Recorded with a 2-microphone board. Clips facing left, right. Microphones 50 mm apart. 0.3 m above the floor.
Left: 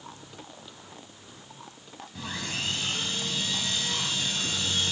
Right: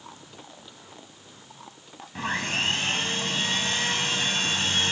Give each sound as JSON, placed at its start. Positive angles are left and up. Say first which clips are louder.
{"t": 2.1, "sound": "sawing", "louder": "right 7 dB", "side_deg": -50, "distance_m": 1.9}